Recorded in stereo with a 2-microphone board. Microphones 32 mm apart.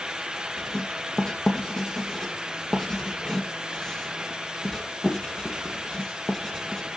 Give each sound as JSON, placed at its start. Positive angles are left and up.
{"t": 0.6, "sound": "writing", "side_deg": 20, "distance_m": 3.5}